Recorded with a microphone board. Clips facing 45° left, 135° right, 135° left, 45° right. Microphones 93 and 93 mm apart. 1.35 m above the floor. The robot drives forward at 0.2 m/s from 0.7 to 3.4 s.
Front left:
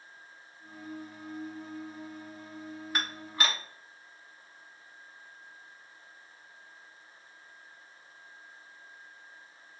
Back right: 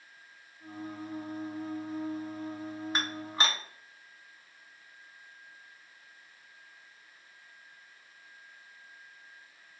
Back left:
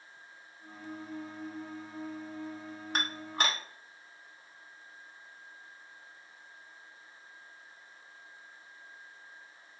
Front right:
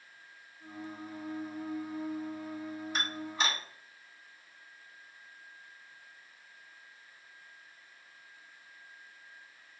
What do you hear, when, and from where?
3.0 s dishes clattering: 160° left, 0.9 m; by 3.6 s 165° left, 1.0 m